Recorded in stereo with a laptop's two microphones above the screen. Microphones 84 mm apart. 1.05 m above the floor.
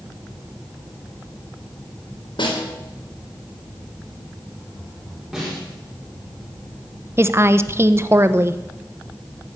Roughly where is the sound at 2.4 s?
Left.